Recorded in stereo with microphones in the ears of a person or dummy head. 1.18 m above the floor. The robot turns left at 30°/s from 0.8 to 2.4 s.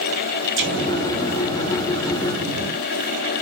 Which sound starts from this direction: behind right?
An explosion, at 0.6 s.